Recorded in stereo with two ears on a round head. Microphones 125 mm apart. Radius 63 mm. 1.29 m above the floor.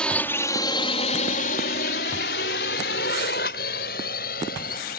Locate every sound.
0.0 s a drone: 5° left (ahead or behind); by 5.0 s 60° left (ahead or behind)